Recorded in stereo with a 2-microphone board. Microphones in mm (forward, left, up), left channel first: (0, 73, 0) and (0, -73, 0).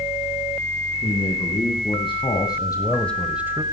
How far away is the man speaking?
About 3.5 m.